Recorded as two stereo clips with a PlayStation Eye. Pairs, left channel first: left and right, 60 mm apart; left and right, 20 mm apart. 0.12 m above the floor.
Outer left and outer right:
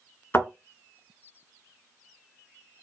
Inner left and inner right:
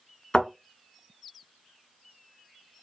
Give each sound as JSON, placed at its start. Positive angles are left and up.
{"t": 0.3, "sound": "a thud", "side_deg": 40, "distance_m": 1.6}